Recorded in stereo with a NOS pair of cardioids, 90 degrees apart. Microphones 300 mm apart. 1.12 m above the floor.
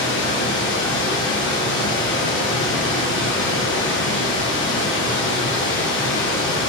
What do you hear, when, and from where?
0.0 s running water: 40° left, 0.9 m